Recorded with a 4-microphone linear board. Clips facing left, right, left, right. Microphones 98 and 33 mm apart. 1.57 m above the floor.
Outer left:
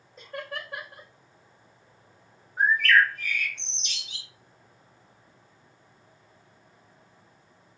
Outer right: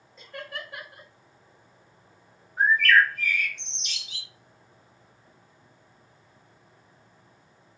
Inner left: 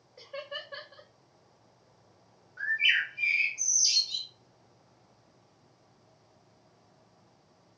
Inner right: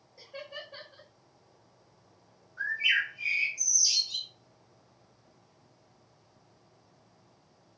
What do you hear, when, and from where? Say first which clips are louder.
0.2 s laughter: outer left 2 dB, inner left 3 dB; 50° left (ahead or behind), 1.4 m
2.6 s a bird: outer right 1 dB, inner left 1 dB; 30° left (ahead or behind), 1.3 m